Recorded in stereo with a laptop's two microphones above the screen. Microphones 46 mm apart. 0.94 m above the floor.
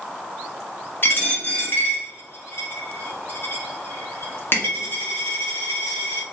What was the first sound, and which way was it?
A dropped coin, 45° left (ahead or behind).